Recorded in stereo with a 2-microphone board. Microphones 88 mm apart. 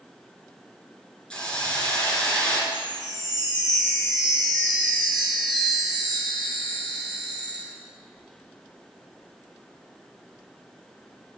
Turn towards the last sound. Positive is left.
turn(degrees=0)  # may be behind; listen again after turning